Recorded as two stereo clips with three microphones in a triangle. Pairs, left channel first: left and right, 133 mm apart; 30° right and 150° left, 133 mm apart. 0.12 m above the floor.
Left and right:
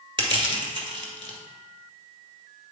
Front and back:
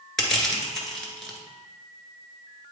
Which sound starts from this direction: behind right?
Crushing, at 0.2 s.